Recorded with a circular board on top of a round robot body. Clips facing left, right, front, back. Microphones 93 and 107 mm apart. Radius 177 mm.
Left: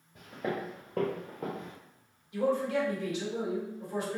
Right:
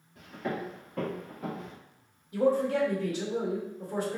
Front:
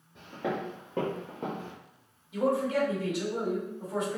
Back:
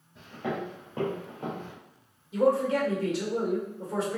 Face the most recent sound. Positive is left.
turn(degrees=-130)